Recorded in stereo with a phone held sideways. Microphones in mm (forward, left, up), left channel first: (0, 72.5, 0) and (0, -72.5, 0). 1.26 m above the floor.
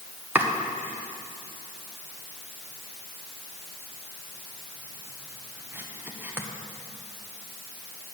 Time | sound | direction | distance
0.3 | chopping | 15° right (ahead or behind) | 1.2 m